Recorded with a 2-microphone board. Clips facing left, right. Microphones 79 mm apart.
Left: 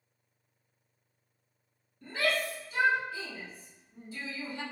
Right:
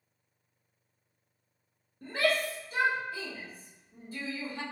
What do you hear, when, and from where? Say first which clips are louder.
2.0 s a shout: right 2 dB; 40° right (ahead or behind), 2 m